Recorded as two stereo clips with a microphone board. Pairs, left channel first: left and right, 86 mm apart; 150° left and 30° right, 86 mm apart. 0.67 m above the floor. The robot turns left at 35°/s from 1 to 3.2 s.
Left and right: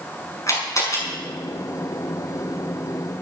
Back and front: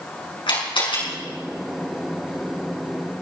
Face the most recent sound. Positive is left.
turn(degrees=65)